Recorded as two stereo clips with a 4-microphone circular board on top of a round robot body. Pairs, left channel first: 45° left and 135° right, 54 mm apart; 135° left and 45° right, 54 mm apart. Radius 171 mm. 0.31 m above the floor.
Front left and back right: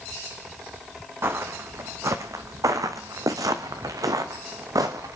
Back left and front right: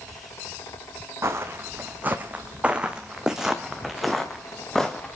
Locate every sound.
1.2 s footsteps: 90° right, 1.7 m; by 5.2 s 145° right, 2.5 m